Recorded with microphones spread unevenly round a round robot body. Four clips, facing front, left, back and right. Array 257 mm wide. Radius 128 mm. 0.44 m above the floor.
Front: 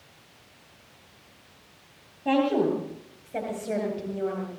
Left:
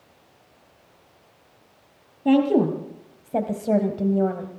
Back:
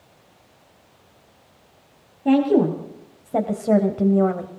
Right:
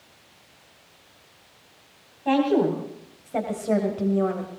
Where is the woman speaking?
125° left, 3 m; by 4.6 s 175° left, 2.0 m.